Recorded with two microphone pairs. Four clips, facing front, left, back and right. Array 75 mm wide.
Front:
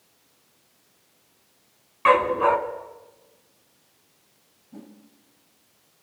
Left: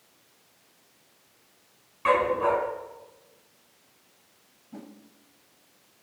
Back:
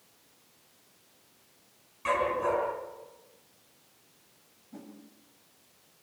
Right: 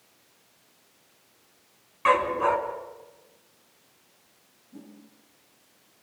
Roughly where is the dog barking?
Ahead.